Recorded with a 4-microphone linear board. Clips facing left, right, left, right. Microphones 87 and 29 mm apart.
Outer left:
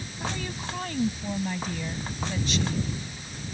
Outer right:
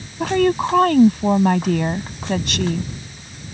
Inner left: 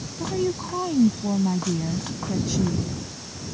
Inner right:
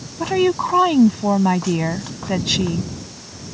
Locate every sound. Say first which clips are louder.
0.2 s a woman speaking: outer right 17 dB, inner right 8 dB; 75° right (ahead or behind)